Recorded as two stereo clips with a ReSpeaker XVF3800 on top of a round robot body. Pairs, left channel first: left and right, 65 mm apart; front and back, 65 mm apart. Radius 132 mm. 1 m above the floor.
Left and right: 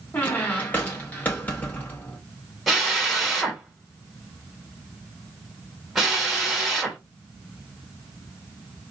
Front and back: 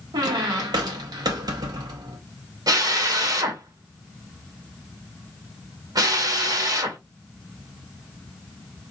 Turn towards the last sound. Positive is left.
turn(degrees=180)